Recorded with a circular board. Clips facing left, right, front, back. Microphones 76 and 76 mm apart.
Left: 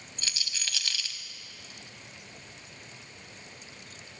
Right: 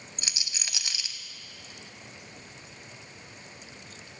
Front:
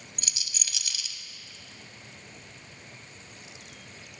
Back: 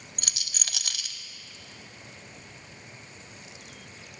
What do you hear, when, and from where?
0.2 s a rattle: 160° right, 0.5 m